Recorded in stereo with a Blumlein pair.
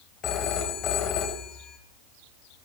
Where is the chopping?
I don't hear chopping.